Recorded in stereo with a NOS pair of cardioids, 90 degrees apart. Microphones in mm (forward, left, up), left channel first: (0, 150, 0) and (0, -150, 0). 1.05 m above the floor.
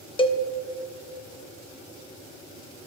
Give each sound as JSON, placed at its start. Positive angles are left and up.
{"t": 0.2, "sound": "a cowbell", "azimuth_deg": 15, "distance_m": 0.5}